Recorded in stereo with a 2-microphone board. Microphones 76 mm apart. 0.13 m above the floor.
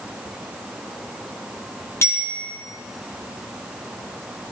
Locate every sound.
2.0 s a bicycle bell: 40° left (ahead or behind), 10 m